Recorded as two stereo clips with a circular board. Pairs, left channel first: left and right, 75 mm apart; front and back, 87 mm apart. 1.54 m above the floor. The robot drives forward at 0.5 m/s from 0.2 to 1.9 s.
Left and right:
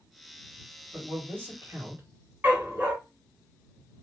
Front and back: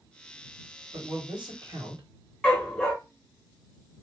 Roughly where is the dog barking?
Right.